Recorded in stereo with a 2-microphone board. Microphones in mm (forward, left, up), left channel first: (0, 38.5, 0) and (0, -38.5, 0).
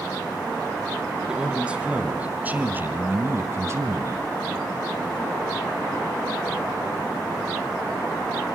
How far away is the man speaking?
About 3 m.